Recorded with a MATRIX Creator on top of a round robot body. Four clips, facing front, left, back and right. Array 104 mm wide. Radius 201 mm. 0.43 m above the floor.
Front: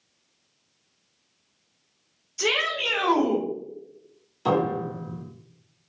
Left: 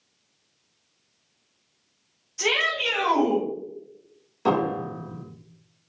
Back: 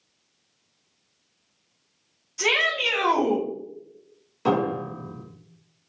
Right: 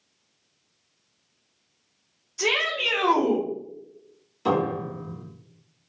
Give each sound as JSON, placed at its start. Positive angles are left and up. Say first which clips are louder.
{"t": 2.4, "sound": "a shout", "louder": "even, back 1 dB", "azimuth_deg": 170, "distance_m": 1.9}
{"t": 4.5, "sound": "a piano", "louder": "left 1 dB, even", "azimuth_deg": 145, "distance_m": 1.6}